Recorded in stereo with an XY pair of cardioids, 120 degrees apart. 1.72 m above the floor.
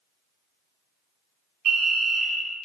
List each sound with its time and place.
1.6 s a fire alarm: 70° right, 1.2 m